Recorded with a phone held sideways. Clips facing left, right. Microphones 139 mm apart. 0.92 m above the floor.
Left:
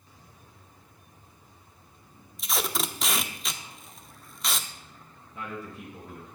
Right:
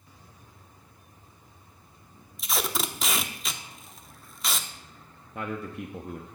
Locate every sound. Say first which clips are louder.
2.4 s tape being pulled: even; centre (ahead or behind), 0.6 m
5.3 s a man speaking: right 4 dB; 60° right (ahead or behind), 1.0 m